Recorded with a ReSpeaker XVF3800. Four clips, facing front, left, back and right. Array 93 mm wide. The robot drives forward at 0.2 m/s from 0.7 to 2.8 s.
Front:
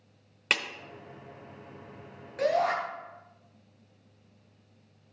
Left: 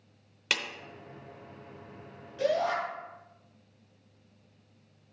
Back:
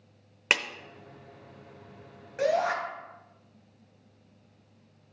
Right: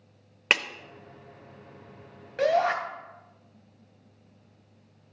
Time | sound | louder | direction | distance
0.5 | a clap | right 7 dB, back 2 dB | 110° right | 0.7 m
2.4 | a shout | right 5 dB, even | 110° right | 2.5 m